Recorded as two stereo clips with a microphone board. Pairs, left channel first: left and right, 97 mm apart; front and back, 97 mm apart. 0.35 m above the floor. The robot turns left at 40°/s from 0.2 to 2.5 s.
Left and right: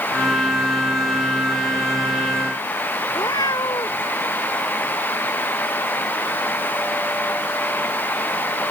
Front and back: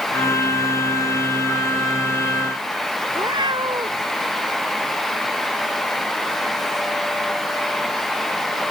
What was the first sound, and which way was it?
A cat meowing, 140° left.